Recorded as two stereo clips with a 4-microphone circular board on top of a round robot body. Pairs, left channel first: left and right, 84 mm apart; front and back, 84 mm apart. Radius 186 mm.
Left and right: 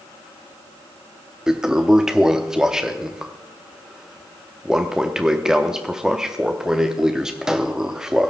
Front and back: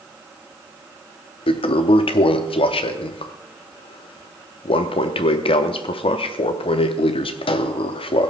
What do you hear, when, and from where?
1.5 s a toilet flushing: 5° right, 0.7 m